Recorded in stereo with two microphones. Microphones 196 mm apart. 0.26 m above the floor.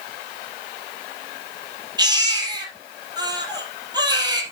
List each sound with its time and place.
2.0 s a baby crying: 20° right (ahead or behind), 3.5 m